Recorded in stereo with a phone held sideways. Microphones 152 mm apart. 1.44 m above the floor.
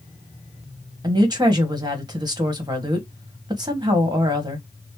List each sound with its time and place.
1.0 s a woman speaking: 25° right (ahead or behind), 1.6 m